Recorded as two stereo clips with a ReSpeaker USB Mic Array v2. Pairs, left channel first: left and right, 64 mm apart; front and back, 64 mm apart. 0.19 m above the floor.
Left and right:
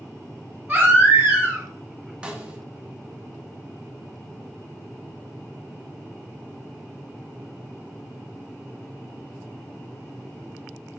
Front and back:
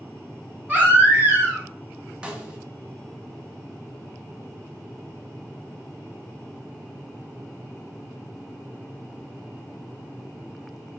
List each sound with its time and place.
0.7 s a baby crying: 135° right, 1.3 m
2.2 s a snare drum: 135° right, 0.7 m